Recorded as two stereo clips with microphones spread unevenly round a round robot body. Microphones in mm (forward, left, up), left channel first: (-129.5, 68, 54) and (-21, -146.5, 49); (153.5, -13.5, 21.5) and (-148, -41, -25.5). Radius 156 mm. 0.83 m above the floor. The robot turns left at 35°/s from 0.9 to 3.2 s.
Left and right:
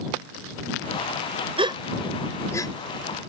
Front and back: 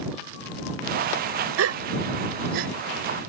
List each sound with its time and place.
1.6 s a gasp: 130° right; by 2.7 s 170° right